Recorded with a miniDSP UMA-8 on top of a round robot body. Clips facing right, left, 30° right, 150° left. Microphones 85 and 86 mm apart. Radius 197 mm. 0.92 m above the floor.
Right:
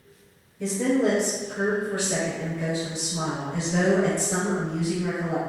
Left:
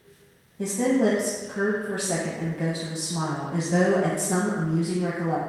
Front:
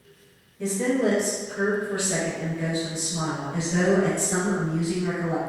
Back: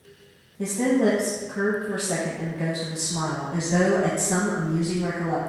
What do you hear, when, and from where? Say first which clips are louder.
0.6 s a woman speaking: left 1 dB, back 2 dB; 110° left, 0.9 m